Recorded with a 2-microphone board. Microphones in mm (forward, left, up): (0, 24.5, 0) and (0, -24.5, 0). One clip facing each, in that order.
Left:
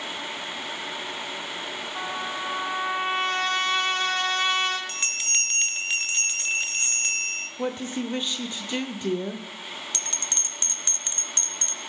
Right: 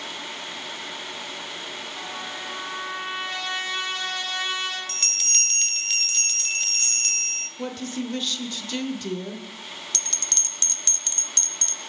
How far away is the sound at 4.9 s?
About 0.7 m.